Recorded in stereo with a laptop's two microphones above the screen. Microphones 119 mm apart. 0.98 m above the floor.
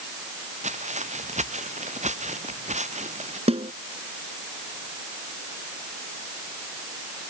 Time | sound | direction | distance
0.6 | footsteps | 85° right | ?
3.5 | a snare drum | 60° right (ahead or behind) | ?